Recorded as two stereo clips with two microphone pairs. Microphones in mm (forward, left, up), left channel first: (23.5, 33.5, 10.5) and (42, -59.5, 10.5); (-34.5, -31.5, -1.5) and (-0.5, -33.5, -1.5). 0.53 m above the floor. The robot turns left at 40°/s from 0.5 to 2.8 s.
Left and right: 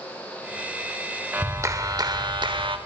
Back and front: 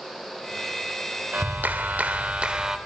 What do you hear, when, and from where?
1.3 s a clap: 15° right, 1.4 m; by 2.8 s 70° right, 1.4 m